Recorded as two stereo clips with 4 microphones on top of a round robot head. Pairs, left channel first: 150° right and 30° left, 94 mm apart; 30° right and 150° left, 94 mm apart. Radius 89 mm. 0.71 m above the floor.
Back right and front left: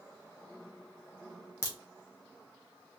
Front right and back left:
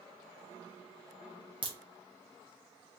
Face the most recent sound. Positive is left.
turn(degrees=155)